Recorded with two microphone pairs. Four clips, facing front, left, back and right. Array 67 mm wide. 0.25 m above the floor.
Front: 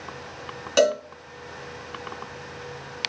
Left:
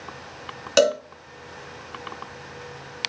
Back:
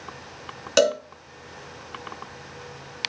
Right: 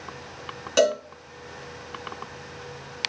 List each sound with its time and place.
0.8 s a cowbell: 135° left, 1.7 m